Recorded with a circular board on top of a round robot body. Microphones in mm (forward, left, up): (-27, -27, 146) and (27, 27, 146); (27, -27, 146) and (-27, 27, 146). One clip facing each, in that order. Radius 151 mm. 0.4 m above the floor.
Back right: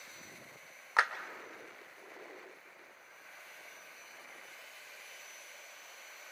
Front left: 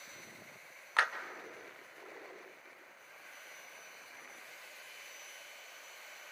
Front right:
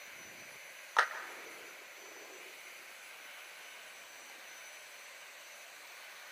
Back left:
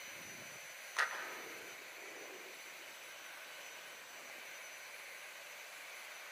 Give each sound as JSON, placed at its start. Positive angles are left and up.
{"t": 1.0, "sound": "a clap", "azimuth_deg": -65, "distance_m": 1.6}